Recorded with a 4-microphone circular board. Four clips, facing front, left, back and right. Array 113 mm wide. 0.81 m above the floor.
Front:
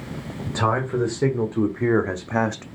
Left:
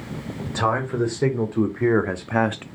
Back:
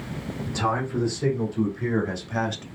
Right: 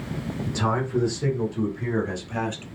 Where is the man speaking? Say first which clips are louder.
Left 3 dB, front 4 dB; 45° left, 3 m; by 2.6 s 60° left, 0.7 m.